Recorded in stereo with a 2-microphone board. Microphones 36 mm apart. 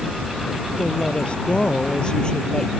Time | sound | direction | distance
0.8 | a woman speaking | 35° left (ahead or behind) | ?